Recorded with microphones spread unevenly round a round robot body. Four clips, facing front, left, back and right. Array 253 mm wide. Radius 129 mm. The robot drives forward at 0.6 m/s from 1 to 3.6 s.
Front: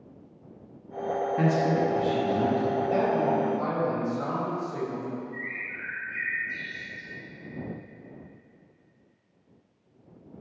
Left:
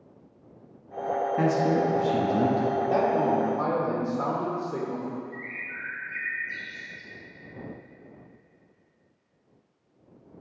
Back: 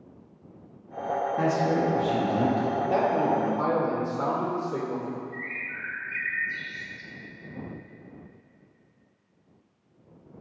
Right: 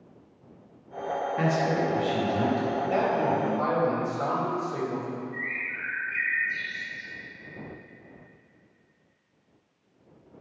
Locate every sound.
1.4 s a man speaking: 60° left, 1.1 m; by 2.7 s 140° left, 1.2 m
2.8 s a man speaking: 145° left, 1.9 m; by 5.2 s 150° left, 2.5 m
5.3 s a bird: 150° left, 2.5 m